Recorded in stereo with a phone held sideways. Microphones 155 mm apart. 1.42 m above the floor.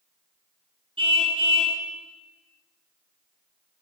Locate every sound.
1.0 s a car horn: 35° right (ahead or behind), 7 m